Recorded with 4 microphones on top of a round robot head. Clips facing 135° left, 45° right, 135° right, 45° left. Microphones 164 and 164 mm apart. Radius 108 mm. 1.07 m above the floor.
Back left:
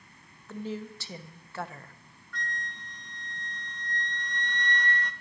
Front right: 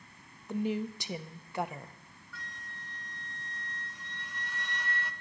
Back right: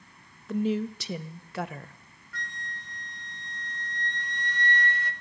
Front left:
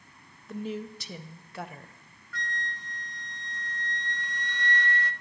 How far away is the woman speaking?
About 0.5 m.